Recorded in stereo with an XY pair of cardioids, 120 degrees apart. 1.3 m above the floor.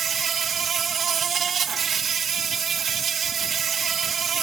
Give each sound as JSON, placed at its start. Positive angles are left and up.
{"t": 0.0, "sound": "an insect", "azimuth_deg": -45, "distance_m": 0.9}